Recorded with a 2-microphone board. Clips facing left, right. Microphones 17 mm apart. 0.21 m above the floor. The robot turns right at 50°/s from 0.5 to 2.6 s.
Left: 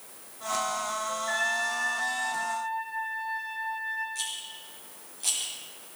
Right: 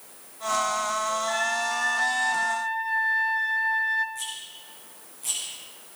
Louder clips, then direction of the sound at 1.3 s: Right 2 dB; 165° left.